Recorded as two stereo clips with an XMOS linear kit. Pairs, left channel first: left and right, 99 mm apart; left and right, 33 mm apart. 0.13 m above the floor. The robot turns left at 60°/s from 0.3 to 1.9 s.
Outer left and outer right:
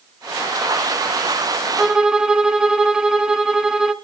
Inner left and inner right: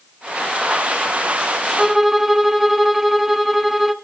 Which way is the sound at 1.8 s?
10° right (ahead or behind).